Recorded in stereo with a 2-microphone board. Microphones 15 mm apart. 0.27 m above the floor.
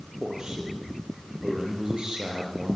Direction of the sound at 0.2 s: 45° right (ahead or behind).